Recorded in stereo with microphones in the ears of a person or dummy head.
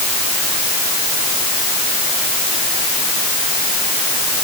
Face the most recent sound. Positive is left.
No sound to turn to.